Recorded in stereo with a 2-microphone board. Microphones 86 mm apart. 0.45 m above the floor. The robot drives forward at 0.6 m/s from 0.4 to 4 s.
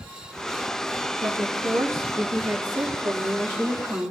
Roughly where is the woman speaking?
Right.